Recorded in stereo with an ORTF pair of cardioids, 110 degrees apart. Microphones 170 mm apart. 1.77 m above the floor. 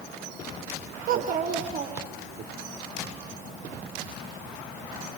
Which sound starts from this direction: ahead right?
A child speaking, at 1.1 s.